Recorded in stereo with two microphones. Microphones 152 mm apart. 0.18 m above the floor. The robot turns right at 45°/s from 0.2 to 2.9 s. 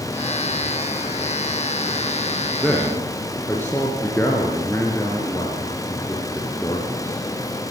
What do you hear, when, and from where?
2.6 s a man speaking: centre (ahead or behind), 3.5 m; by 7.2 s 15° left (ahead or behind), 3.5 m